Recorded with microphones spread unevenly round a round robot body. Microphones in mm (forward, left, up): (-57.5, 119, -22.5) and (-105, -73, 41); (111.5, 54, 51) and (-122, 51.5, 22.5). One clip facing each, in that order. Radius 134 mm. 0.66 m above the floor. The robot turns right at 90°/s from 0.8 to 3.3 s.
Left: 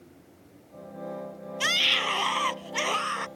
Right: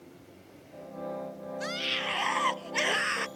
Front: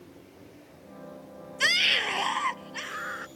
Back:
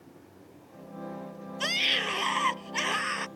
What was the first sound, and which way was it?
A scream, 60° left.